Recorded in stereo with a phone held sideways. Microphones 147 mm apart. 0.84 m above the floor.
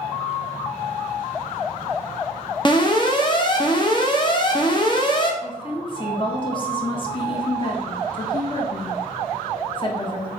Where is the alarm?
30° left (ahead or behind), 0.7 m.